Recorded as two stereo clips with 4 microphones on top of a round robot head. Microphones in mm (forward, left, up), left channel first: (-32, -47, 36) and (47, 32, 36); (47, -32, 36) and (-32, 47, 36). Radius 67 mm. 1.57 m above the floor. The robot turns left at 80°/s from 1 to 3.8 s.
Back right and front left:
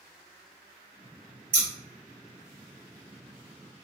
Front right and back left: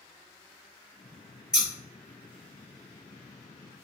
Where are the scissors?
55° left, 1.5 m; by 1.7 s 45° left, 1.5 m.